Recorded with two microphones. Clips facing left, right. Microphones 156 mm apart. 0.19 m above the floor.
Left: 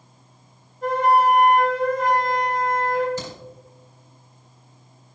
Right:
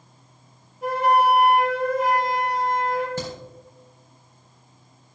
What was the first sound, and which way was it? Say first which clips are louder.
A flute: left 1 dB; 10° right (ahead or behind).